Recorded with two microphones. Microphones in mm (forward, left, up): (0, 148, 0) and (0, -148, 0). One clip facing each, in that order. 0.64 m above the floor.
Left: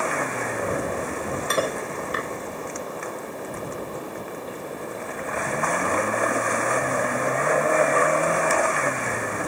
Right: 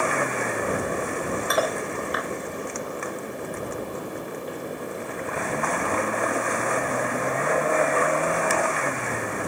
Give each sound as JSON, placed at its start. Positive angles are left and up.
{"t": 1.5, "sound": "cutlery clinking", "side_deg": 30}